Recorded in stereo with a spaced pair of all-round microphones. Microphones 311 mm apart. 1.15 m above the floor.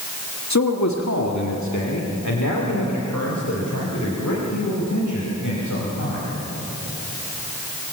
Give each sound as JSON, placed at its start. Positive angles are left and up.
{"t": 0.5, "sound": "a man speaking", "side_deg": 60, "distance_m": 1.6}